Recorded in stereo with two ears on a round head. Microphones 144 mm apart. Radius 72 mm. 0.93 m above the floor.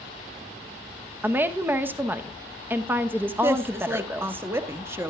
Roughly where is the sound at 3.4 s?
Centre.